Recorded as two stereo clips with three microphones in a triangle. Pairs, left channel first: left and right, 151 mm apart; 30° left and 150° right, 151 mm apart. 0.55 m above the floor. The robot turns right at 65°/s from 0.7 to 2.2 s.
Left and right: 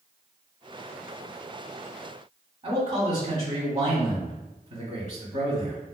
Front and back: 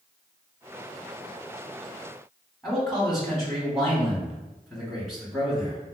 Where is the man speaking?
60° right, 1.6 m.